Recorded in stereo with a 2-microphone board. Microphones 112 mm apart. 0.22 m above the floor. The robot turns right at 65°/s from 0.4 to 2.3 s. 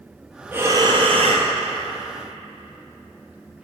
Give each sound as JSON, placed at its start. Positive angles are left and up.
{"t": 0.5, "sound": "breathing", "azimuth_deg": -165, "distance_m": 1.3}